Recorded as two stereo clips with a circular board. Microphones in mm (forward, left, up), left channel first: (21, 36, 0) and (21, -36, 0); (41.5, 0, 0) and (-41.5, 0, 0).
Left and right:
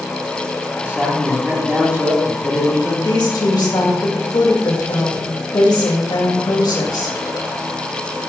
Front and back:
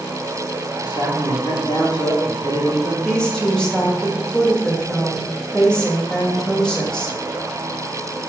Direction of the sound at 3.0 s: 80° left.